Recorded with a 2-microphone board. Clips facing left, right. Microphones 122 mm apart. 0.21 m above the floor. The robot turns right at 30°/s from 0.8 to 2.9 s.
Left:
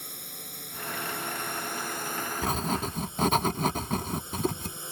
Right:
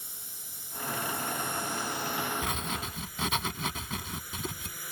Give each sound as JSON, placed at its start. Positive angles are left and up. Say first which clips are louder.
{"t": 0.0, "sound": "a drone", "louder": "left 8 dB", "azimuth_deg": 90}
{"t": 2.4, "sound": "writing", "louder": "left 6 dB", "side_deg": 35}